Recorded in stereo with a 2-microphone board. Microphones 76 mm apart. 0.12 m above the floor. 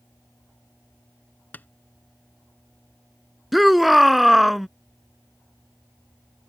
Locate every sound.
1.5 s tapping: 25° left (ahead or behind)
3.5 s a shout: centre (ahead or behind)